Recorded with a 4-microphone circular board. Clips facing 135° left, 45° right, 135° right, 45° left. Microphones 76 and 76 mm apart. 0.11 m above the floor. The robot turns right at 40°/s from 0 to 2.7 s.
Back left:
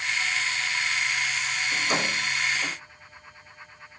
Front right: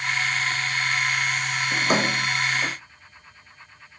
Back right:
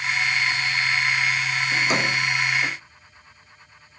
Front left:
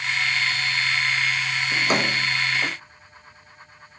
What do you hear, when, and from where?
1.7 s a drawer: 10° right, 2 m; by 2.8 s 30° left, 2 m